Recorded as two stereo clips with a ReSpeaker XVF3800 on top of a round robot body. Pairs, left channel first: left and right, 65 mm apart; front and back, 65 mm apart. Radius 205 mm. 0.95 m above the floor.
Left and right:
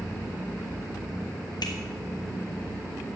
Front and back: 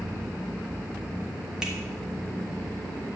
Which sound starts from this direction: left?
A finger snap, at 1.6 s.